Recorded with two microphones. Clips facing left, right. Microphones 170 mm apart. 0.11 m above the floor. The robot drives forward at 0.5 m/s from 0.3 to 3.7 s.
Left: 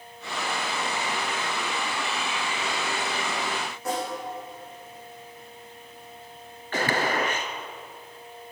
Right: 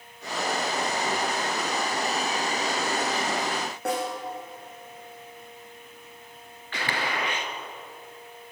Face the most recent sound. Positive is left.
turn(degrees=45)  # may be behind; listen again after turning